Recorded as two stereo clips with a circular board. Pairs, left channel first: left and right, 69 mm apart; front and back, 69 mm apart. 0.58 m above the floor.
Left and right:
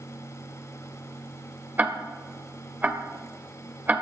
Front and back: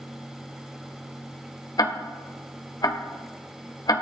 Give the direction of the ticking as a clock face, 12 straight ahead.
1 o'clock.